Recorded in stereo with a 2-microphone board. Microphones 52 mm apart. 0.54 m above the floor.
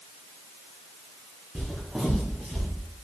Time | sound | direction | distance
1.6 | footsteps | 10° right (ahead or behind) | 2 m